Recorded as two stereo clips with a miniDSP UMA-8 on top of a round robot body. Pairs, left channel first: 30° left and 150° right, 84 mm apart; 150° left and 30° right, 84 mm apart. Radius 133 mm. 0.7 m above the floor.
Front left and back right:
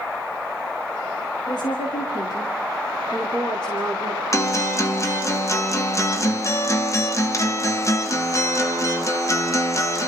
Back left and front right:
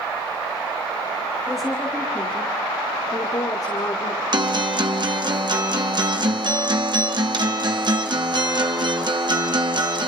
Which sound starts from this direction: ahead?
A guitar, at 4.3 s.